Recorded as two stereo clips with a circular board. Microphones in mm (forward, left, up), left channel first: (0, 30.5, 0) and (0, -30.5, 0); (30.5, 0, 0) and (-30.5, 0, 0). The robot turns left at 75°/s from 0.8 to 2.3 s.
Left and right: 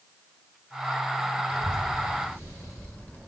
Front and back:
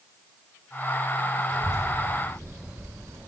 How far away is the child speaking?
About 1.9 m.